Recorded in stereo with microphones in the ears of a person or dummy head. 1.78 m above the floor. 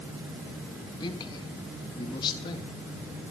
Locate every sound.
1.0 s a man speaking: 30° left (ahead or behind), 3 m